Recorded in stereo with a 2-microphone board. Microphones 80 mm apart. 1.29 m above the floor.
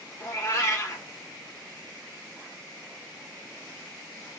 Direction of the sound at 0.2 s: 40° left (ahead or behind).